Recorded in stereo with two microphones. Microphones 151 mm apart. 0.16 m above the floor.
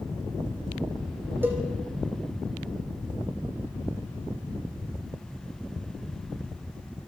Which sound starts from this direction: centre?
A cowbell, at 1.4 s.